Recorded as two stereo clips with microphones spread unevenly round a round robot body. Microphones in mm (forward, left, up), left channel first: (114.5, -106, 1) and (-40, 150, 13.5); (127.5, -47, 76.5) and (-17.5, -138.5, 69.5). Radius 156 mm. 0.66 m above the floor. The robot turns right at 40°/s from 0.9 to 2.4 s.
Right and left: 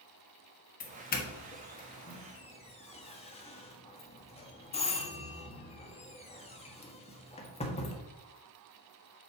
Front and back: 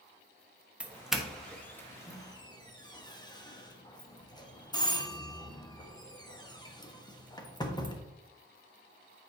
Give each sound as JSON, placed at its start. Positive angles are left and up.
{"t": 0.8, "sound": "a doorbell", "azimuth_deg": -75, "distance_m": 1.4}